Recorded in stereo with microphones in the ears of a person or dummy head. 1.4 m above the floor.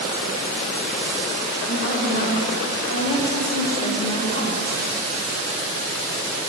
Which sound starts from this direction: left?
A woman speaking, at 1.7 s.